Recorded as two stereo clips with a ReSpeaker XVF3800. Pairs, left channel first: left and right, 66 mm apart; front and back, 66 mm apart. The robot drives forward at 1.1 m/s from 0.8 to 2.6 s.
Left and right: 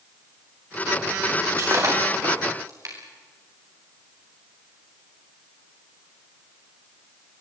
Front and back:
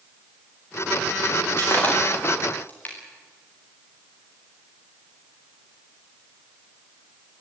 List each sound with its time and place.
1.5 s breaking glass: 55° right, 9 m; by 3.0 s 60° right, 8 m